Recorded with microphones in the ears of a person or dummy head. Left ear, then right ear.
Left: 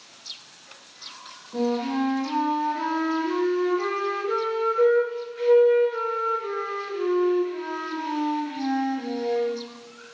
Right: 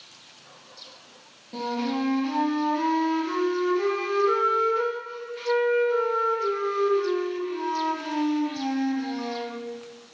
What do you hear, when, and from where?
1.5 s a flute: 40° right (ahead or behind), 0.9 m